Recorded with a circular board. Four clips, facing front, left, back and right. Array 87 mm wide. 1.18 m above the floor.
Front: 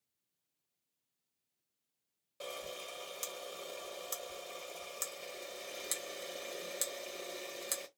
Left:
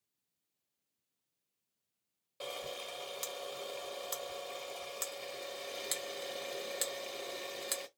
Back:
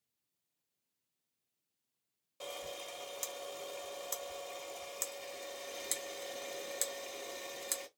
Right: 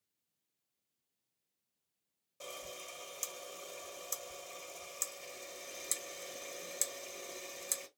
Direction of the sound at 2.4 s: 75° left.